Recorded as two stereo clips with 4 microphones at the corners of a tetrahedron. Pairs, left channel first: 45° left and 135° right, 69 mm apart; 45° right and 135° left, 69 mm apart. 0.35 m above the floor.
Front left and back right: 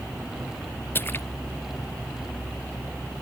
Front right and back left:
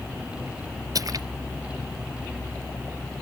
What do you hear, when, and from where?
0.9 s a splash: 105° left